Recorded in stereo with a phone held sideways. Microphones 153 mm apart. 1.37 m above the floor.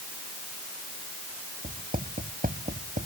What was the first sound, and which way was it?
Writing, 65° right (ahead or behind).